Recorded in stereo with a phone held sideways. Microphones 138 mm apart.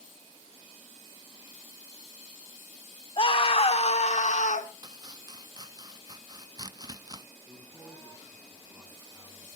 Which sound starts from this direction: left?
A scream, at 3.2 s.